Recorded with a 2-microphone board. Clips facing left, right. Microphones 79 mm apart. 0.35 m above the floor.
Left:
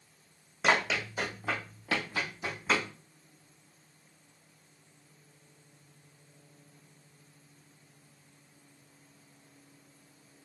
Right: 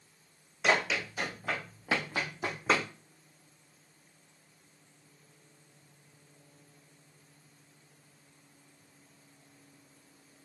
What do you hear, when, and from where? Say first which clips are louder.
0.6 s running footsteps: left 1 dB; 40° left (ahead or behind), 1.2 m; by 2.9 s 60° right (ahead or behind), 1.1 m